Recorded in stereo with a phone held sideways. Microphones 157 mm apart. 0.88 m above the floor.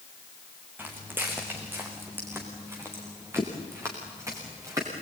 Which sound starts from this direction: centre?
Footsteps, at 0.8 s.